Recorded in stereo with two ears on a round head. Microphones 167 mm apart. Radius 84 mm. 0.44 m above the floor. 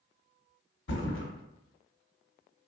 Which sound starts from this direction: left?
A thud, at 0.9 s.